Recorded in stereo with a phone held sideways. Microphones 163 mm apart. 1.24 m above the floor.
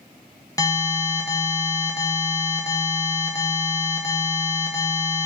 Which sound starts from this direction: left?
An alarm, at 0.6 s.